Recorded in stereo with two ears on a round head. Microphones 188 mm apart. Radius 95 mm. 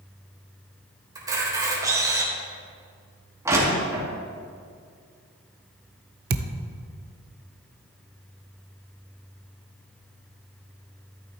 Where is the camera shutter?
20° right (ahead or behind), 3.5 m.